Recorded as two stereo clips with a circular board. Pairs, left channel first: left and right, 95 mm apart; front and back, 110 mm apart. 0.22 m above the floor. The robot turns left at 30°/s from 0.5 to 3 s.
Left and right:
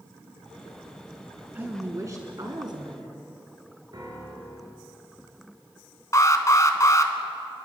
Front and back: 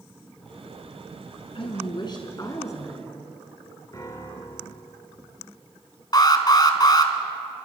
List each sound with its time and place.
1.6 s a woman speaking: 25° right, 2.5 m; by 3.3 s 65° right, 2.5 m
3.9 s a piano: 50° right, 4 m
6.1 s an alarm: 45° left, 1.7 m